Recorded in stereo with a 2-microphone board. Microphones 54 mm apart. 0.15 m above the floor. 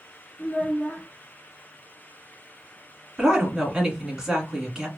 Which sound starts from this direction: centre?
A woman speaking, at 3.2 s.